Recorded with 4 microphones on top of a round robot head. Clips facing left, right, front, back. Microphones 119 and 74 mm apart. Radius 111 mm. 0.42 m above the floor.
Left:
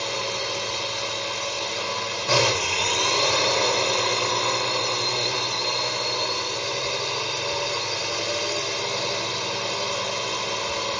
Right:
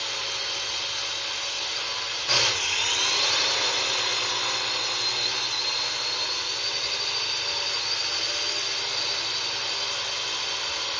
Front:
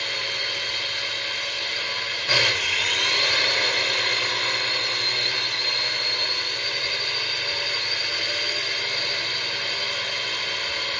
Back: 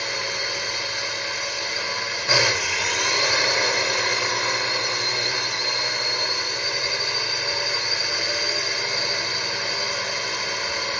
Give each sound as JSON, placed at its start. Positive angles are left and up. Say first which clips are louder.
{"t": 0.0, "sound": "a drone", "louder": "left 8 dB, back 2 dB", "azimuth_deg": 115}